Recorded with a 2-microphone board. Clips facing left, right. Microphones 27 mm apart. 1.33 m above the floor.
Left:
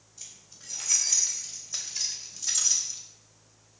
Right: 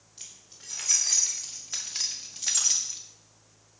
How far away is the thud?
I don't hear a thud.